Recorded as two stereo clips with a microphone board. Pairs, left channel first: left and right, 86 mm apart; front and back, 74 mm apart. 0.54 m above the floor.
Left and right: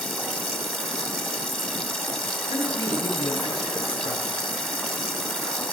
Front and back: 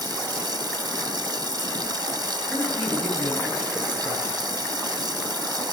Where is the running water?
175° left, 1.4 m.